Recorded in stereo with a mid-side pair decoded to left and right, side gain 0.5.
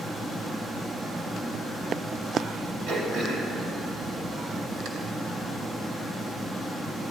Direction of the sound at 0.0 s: 25° right.